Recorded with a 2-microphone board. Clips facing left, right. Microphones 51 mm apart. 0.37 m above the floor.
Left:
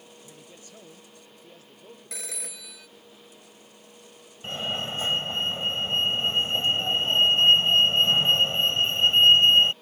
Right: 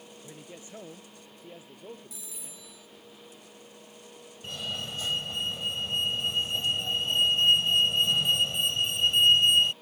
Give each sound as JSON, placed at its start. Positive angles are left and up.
{"t": 0.2, "sound": "a man speaking", "side_deg": -25}
{"t": 2.1, "sound": "a phone ringing", "side_deg": 75}
{"t": 4.4, "sound": "a fire alarm", "side_deg": 35}